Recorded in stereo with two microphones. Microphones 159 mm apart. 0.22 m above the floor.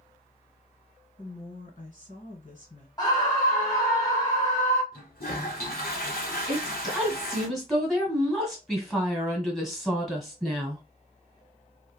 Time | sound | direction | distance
1.2 | a woman speaking | 55° left (ahead or behind) | 2 m
3.0 | a scream | 25° left (ahead or behind) | 1.0 m
4.9 | a toilet flushing | 70° left (ahead or behind) | 1.8 m
6.5 | a woman speaking | centre (ahead or behind) | 1.6 m